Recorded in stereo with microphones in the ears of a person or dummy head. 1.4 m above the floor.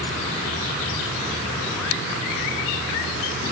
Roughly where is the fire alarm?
No fire alarm in this recording.